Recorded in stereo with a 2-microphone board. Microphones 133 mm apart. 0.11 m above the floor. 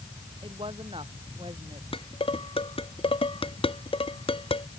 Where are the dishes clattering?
45° left (ahead or behind).